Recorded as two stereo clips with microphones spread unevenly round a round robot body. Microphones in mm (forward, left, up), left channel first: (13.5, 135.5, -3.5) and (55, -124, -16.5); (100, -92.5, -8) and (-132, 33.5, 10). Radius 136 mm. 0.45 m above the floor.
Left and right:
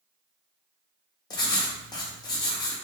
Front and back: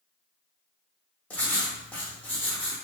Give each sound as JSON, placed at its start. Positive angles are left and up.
{"t": 1.3, "sound": "writing", "azimuth_deg": 40, "distance_m": 0.6}